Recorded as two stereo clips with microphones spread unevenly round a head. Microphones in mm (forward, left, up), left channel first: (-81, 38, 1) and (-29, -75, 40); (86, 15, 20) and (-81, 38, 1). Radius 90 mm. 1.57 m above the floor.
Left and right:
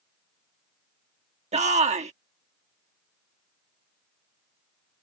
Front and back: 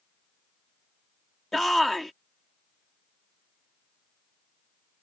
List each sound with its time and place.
1.5 s a shout: 95° right